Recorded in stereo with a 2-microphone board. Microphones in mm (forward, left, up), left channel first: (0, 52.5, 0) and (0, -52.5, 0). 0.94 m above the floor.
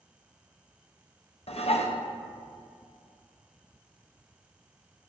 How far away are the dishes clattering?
About 0.5 m.